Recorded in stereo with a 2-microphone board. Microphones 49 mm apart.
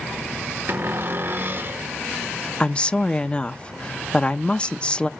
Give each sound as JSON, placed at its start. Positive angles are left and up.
{"t": 0.7, "sound": "a cupboard door", "side_deg": -50, "distance_m": 0.7}
{"t": 2.6, "sound": "a woman speaking", "side_deg": 20, "distance_m": 0.5}